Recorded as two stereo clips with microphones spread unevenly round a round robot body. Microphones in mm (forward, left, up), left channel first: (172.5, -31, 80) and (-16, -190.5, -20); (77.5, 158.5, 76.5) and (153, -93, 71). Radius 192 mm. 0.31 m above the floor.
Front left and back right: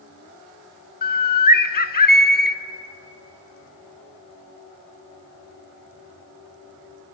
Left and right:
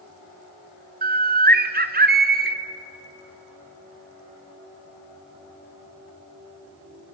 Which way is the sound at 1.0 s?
15° right.